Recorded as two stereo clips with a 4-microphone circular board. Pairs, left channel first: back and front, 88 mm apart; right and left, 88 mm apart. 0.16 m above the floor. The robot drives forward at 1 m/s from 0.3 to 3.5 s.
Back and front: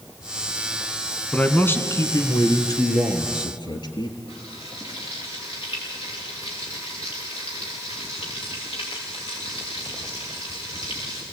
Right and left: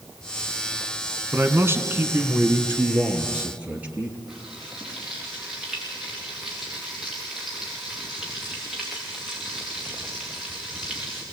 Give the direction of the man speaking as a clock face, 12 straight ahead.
8 o'clock.